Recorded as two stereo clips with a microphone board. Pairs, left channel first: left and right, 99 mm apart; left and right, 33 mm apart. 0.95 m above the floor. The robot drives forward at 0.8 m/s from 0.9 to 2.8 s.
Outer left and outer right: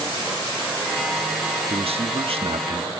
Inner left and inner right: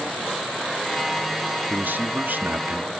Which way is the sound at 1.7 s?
75° right (ahead or behind).